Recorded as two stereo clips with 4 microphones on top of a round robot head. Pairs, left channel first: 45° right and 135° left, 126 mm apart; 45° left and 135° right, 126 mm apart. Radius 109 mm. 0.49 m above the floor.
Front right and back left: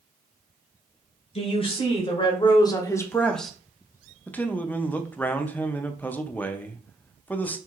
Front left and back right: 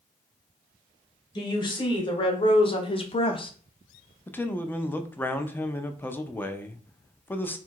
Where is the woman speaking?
10° right, 2 m; by 3.5 s 45° left, 0.8 m.